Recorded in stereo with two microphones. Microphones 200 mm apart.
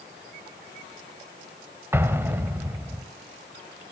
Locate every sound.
1.9 s an explosion: 10° right (ahead or behind), 1.5 m